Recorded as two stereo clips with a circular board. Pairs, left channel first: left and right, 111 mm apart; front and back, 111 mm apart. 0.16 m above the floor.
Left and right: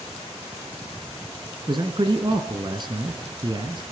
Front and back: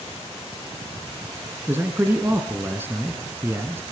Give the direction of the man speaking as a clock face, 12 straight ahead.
4 o'clock.